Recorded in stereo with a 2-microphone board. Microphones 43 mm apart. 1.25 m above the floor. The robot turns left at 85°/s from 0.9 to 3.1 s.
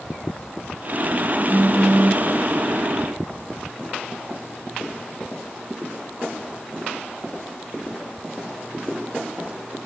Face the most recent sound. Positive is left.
turn(degrees=90)